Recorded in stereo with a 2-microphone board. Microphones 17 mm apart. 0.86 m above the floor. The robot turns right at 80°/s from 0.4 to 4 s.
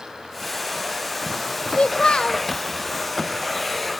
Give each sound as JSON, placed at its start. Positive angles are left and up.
{"t": 1.7, "sound": "a child speaking", "azimuth_deg": 80, "distance_m": 0.7}